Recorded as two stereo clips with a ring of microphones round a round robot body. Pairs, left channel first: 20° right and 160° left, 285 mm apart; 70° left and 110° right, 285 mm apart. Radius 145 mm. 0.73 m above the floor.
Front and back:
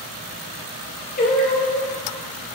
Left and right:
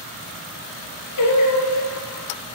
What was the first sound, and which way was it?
Singing, 40° left.